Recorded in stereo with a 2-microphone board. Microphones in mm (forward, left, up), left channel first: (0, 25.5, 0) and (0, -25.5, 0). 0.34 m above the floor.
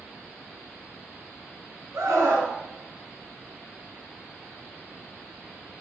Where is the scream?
70° right (ahead or behind), 3 m.